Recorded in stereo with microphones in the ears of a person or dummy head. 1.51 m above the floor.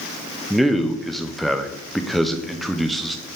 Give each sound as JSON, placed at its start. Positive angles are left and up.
{"t": 0.5, "sound": "a man speaking", "side_deg": 0, "distance_m": 0.6}